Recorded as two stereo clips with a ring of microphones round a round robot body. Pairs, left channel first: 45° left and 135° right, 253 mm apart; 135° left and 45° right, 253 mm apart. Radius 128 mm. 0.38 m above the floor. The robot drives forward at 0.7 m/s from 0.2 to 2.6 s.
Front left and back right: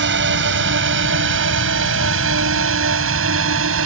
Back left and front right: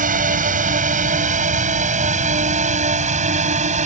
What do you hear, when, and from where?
0.0 s a drone: 100° right; by 3.9 s 105° right